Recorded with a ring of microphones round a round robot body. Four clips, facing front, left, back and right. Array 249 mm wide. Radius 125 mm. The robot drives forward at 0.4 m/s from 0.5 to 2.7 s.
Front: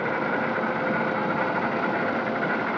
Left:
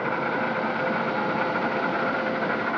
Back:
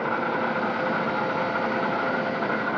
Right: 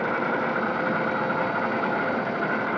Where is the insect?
150° left, 8 m.